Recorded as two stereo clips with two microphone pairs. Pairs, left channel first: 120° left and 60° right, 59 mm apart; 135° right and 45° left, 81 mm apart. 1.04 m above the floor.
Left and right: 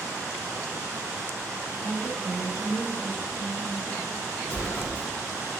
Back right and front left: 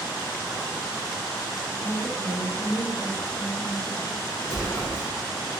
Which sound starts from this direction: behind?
A woman speaking, at 1.8 s.